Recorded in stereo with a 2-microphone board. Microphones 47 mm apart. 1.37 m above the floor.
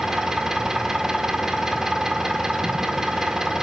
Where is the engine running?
10° right (ahead or behind), 1.9 m.